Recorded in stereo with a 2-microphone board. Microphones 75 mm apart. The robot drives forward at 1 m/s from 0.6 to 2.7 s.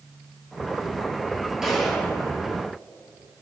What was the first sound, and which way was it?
A gunshot, 5° right (ahead or behind).